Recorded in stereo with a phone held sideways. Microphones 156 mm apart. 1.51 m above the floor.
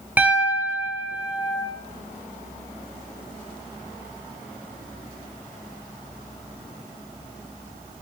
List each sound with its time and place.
0.2 s a piano: 10° right (ahead or behind), 0.5 m